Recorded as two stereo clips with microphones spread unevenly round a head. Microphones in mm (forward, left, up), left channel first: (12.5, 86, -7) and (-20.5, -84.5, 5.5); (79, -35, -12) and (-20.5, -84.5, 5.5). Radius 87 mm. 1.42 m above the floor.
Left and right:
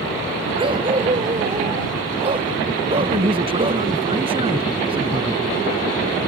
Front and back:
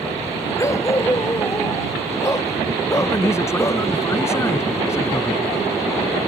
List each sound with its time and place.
0.6 s a dog barking: 40° right
3.0 s a man speaking: 40° right